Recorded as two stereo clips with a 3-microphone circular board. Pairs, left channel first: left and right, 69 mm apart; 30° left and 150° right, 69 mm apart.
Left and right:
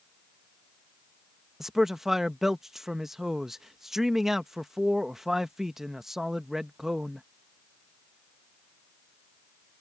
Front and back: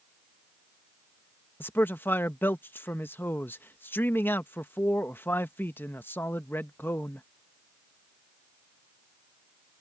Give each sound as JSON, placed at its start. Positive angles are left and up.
{"t": 1.6, "sound": "a man speaking", "azimuth_deg": -10}